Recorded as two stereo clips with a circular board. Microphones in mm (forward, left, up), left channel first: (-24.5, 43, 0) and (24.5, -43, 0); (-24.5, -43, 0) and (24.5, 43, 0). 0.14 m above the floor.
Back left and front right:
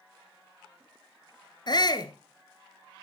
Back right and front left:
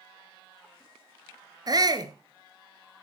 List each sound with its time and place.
1.7 s a shout: 90° left, 1.9 m